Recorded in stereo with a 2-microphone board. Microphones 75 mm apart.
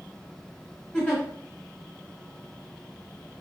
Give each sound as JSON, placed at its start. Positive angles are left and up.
{"t": 0.9, "sound": "a giggle", "side_deg": 20, "distance_m": 1.1}